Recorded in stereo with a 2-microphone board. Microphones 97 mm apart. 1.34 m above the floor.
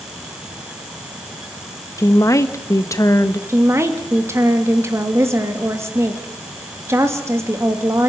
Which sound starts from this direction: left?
A woman speaking, at 2.0 s.